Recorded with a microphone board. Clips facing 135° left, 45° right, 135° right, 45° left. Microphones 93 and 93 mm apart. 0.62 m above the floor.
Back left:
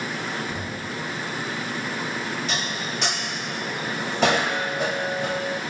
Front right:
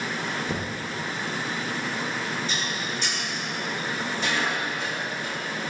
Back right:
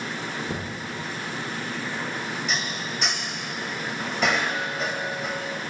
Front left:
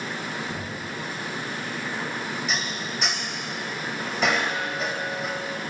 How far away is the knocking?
About 5.5 m.